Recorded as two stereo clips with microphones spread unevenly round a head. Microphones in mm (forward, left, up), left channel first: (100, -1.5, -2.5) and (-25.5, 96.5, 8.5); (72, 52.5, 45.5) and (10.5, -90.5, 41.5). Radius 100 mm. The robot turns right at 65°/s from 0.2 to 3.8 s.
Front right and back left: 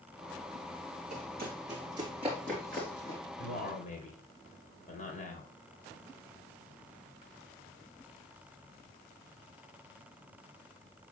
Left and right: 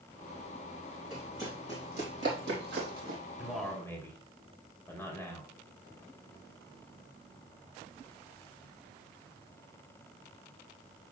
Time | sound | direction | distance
1.1 | running footsteps | 160° left | 3.5 m
3.4 | a man speaking | 35° right | 3.5 m